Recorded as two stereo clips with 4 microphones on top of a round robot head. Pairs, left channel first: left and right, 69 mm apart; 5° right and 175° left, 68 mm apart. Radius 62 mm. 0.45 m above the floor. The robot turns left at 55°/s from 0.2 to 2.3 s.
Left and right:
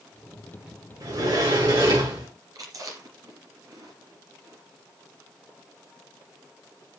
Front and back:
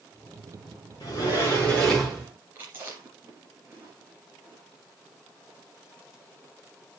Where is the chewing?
120° right, 3 m.